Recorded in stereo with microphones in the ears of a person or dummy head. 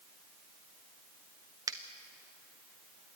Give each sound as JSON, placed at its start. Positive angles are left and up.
{"t": 1.7, "sound": "a finger snap", "side_deg": -20, "distance_m": 0.9}